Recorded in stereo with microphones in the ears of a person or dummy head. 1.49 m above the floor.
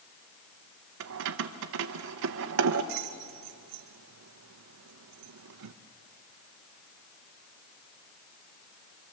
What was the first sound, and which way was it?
Keys jangling, 50° right (ahead or behind).